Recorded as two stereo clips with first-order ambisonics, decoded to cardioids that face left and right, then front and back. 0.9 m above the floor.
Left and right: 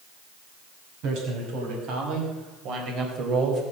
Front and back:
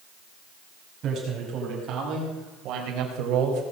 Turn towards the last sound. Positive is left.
turn(degrees=-150)